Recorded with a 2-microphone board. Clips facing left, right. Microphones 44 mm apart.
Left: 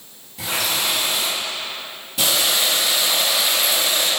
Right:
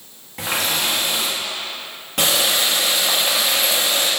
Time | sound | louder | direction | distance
0.4 | a running tap | right 1 dB | 60° right (ahead or behind) | 1.6 m